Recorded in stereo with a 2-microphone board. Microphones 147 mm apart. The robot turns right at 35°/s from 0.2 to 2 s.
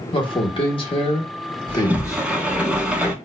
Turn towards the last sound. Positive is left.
turn(degrees=-10)  # may be behind; listen again after turning